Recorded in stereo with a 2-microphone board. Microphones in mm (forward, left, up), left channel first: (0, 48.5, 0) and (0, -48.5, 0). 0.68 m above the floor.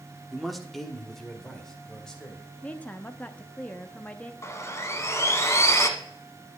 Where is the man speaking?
Centre (ahead or behind), 1.1 m; by 2.5 s 10° left (ahead or behind), 2.5 m.